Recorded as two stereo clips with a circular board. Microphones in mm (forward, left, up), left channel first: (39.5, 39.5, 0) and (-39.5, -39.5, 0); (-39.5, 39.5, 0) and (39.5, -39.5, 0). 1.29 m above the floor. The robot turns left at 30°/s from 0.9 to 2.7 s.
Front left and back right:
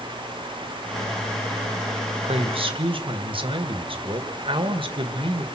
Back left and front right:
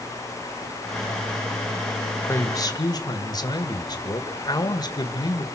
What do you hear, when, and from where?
2.2 s a man speaking: 160° right, 1.7 m; by 5.4 s 170° right, 1.7 m